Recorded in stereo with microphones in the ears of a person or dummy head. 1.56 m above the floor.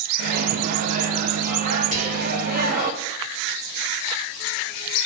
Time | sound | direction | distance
0.2 | a microwave | 45° right (ahead or behind) | 1.0 m
1.9 | whispering | 35° right (ahead or behind) | 2 m